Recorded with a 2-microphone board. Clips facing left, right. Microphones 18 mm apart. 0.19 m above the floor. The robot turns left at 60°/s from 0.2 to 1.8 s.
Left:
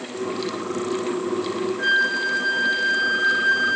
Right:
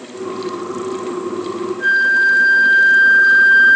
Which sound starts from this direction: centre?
A flute, at 1.8 s.